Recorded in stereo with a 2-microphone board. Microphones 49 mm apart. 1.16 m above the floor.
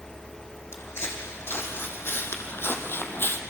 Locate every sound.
0.7 s footsteps: 60° left (ahead or behind), 3.5 m; by 3.4 s 50° left (ahead or behind), 2.0 m